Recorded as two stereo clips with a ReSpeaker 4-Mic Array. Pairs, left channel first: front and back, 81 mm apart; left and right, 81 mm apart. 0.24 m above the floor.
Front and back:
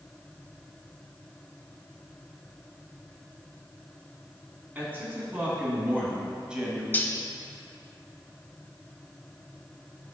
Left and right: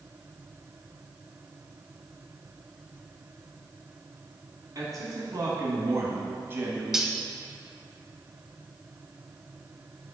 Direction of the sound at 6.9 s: 15° right.